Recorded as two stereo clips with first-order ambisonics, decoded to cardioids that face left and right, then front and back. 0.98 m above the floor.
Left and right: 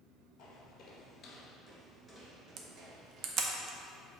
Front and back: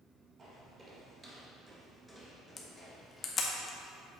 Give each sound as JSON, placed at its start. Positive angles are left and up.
{"t": 0.4, "sound": "footsteps", "azimuth_deg": 120, "distance_m": 1.4}
{"t": 2.6, "sound": "a camera shutter", "azimuth_deg": -60, "distance_m": 0.7}